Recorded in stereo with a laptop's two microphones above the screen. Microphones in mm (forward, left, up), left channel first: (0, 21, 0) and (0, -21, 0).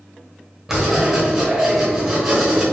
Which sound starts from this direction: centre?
Writing, at 0.7 s.